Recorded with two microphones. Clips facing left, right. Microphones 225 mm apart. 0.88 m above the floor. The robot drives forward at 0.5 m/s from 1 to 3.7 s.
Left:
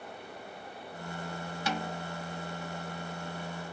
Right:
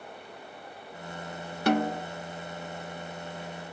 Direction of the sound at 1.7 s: 60° right (ahead or behind).